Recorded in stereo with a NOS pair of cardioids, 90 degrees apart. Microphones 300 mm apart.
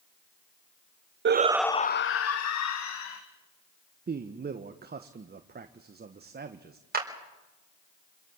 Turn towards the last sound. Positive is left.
turn(degrees=-30)